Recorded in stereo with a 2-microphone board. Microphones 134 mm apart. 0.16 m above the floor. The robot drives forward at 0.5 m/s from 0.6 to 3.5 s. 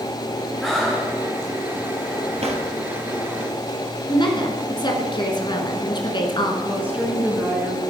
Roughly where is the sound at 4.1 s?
Left.